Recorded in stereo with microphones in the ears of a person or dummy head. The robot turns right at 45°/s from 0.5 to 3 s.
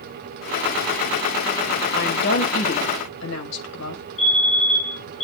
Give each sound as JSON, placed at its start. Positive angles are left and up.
{"t": 1.9, "sound": "a woman speaking", "azimuth_deg": 55, "distance_m": 5.5}
{"t": 4.2, "sound": "a fire alarm", "side_deg": 35, "distance_m": 7.5}